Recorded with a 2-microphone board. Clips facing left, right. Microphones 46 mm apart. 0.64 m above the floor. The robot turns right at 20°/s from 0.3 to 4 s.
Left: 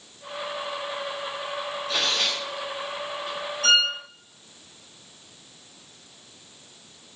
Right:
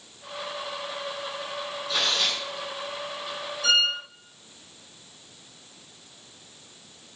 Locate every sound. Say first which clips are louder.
1.9 s tearing paper: even; 40° left (ahead or behind), 4.5 m; by 3.4 s 70° left (ahead or behind), 4.5 m
3.6 s a violin: left 2 dB; 60° left (ahead or behind), 4.5 m; by 3.9 s 65° left (ahead or behind), 4.5 m